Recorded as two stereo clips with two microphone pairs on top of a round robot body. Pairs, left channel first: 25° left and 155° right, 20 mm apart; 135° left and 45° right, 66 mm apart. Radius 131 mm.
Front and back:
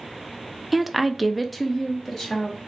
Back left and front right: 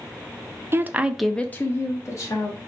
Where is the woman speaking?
65° right, 0.5 m; by 2.6 s 100° left, 1.1 m.